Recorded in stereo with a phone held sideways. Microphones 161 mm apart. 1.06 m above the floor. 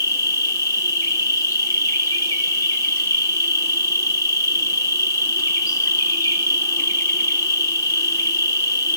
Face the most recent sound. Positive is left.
turn(degrees=20)  # may be behind; listen again after turning